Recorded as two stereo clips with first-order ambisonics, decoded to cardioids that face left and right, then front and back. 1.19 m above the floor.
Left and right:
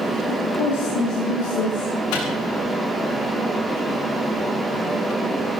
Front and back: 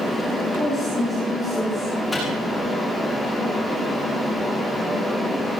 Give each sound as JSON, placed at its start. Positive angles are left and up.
{"t": 0.3, "sound": "a woman speaking", "azimuth_deg": 95, "distance_m": 7.5}
{"t": 2.1, "sound": "a microwave", "azimuth_deg": 85, "distance_m": 8.0}